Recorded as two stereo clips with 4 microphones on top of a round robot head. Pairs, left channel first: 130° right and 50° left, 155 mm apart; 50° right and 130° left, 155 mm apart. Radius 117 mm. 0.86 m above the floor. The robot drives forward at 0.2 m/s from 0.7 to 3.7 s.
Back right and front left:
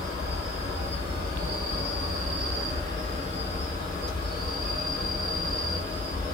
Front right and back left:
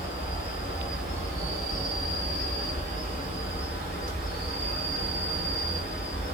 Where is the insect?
75° left, 1.6 m; by 6.3 s 95° left, 1.6 m.